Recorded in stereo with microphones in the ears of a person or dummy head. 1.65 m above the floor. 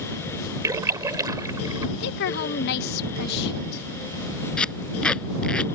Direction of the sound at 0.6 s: 15° right (ahead or behind).